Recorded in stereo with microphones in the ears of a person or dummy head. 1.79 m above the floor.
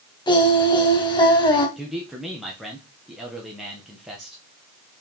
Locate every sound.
0.3 s singing: 20° left (ahead or behind), 2.5 m
1.8 s a man speaking: 5° right (ahead or behind), 1.6 m